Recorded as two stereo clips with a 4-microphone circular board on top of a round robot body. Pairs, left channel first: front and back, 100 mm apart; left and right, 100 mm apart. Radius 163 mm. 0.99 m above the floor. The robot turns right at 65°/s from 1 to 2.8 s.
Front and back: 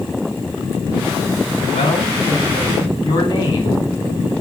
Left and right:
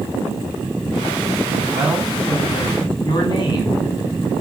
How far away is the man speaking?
About 3.5 m.